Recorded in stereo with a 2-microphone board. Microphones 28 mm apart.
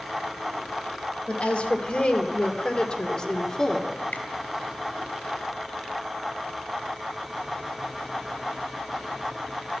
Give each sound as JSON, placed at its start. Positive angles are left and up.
{"t": 1.3, "sound": "a woman speaking", "side_deg": 50, "distance_m": 2.5}
{"t": 4.1, "sound": "a finger snap", "side_deg": 75, "distance_m": 3.0}